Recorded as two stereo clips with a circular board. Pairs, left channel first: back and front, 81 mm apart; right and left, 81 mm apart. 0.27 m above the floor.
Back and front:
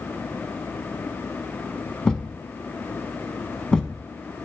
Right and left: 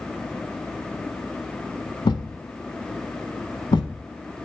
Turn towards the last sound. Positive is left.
turn(degrees=-100)